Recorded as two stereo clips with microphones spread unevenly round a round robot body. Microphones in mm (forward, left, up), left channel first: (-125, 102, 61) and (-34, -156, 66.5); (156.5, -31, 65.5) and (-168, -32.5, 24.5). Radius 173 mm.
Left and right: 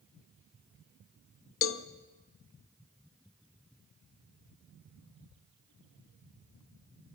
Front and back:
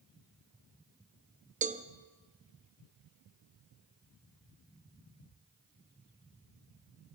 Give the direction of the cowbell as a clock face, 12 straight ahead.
8 o'clock.